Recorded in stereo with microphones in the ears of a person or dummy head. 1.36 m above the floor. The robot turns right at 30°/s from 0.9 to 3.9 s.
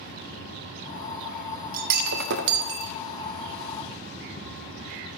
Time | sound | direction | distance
1.7 | breaking glass | 125° right | 0.7 m